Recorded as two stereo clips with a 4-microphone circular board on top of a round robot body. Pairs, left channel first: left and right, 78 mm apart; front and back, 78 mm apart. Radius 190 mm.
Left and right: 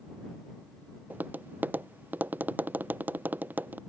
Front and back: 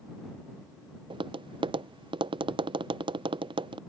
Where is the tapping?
160° right.